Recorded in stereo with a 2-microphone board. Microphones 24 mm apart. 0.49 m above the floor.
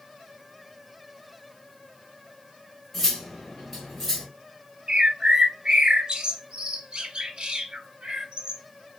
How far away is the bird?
About 0.6 m.